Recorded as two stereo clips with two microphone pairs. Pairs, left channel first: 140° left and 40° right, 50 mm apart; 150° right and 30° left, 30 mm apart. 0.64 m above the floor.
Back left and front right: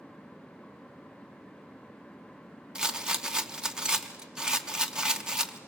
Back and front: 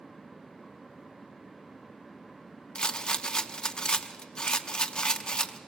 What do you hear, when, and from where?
2.8 s a rattle: 105° right, 0.7 m